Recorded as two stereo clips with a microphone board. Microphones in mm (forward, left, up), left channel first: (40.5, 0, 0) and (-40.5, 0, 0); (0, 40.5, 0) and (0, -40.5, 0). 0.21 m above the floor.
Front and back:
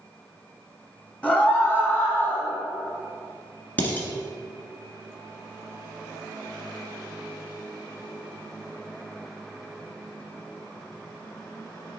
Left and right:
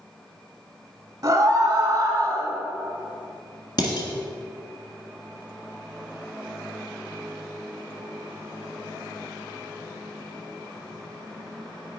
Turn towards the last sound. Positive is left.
turn(degrees=65)